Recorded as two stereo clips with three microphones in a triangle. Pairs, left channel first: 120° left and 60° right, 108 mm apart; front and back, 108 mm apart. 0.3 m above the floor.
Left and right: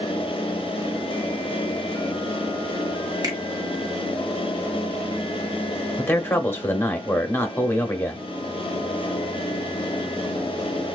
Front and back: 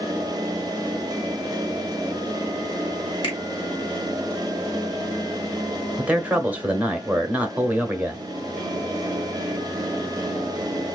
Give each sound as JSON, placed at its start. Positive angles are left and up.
{"t": 3.2, "sound": "a finger snap", "azimuth_deg": -15, "distance_m": 2.0}
{"t": 6.0, "sound": "a man speaking", "azimuth_deg": 135, "distance_m": 0.9}